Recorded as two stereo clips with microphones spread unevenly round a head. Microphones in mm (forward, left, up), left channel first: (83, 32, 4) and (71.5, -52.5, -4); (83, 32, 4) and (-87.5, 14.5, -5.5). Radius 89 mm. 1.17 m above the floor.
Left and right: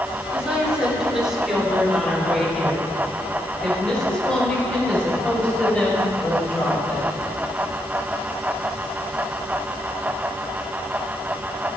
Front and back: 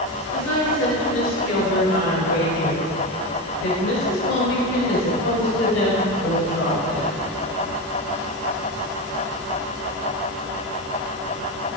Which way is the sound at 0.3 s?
20° right.